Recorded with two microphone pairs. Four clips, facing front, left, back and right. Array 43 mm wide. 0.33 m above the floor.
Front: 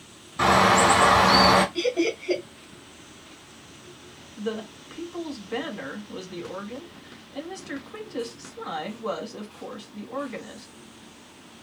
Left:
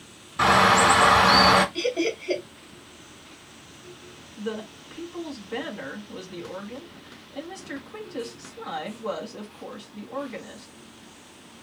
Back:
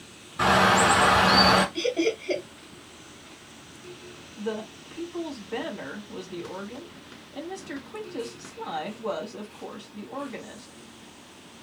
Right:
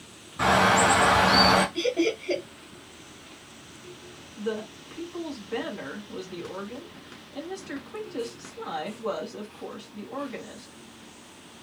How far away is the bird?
About 1.6 m.